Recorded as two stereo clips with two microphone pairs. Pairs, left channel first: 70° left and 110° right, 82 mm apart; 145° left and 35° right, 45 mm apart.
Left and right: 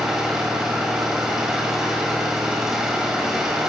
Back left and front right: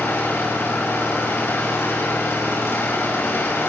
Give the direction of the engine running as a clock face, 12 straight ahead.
6 o'clock.